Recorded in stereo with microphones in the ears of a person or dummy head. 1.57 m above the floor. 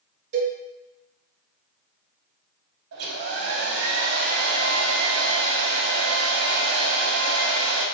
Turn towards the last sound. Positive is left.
turn(degrees=-65)  # may be behind; listen again after turning